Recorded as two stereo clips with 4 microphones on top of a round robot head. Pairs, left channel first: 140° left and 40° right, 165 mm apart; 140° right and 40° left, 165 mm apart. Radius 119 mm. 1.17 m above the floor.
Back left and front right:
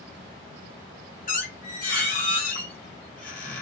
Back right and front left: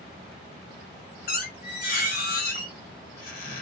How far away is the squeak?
About 1.2 m.